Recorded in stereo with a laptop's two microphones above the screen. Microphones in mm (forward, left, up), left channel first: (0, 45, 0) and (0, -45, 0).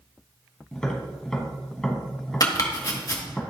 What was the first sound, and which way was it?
Tapping, 10° left (ahead or behind).